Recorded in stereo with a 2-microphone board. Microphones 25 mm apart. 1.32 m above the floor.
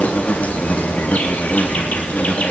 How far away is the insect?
About 3.5 m.